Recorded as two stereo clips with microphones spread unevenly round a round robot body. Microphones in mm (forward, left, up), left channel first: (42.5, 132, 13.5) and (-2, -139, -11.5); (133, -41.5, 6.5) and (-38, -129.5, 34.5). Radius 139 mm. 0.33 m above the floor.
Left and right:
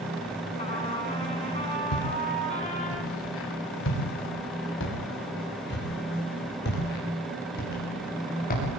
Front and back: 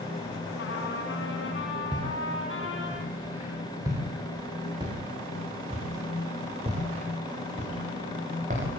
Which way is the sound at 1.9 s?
120° left.